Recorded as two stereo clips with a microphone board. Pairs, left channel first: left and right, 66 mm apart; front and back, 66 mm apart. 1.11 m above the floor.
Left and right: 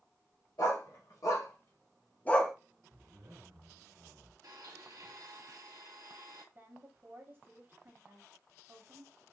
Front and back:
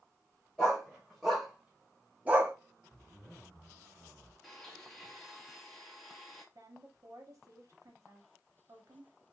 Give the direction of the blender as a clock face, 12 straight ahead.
3 o'clock.